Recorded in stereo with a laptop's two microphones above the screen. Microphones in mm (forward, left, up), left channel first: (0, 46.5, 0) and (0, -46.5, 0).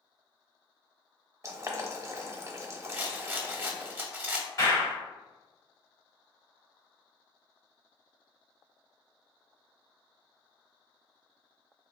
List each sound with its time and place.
1.4 s boiling: 30° right (ahead or behind), 0.7 m
2.9 s a rattle: 20° right (ahead or behind), 0.6 m
4.6 s a clap: 35° left (ahead or behind), 1.4 m